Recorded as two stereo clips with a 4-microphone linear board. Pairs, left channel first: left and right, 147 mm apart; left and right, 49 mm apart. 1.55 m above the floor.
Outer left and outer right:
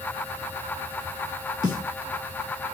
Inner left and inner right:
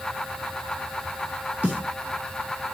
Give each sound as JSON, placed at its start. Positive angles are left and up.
{"t": 1.6, "sound": "a snare drum", "side_deg": -25, "distance_m": 3.0}